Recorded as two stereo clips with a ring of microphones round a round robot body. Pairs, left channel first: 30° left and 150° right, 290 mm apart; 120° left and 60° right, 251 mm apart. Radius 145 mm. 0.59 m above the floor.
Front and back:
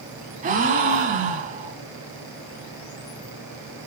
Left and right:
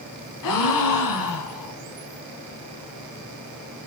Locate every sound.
0.4 s a gasp: 145° left, 1.8 m